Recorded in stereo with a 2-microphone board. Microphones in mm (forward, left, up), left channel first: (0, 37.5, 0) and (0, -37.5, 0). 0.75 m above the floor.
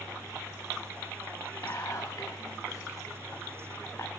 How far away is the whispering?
About 1.0 m.